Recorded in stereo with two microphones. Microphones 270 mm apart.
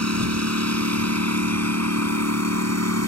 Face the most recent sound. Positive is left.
turn(degrees=-75)  # may be behind; listen again after turning